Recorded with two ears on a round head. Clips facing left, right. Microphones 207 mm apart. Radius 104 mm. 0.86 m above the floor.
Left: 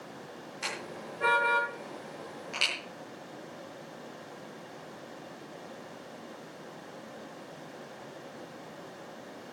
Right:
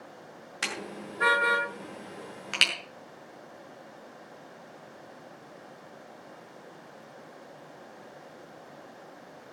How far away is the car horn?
About 7 m.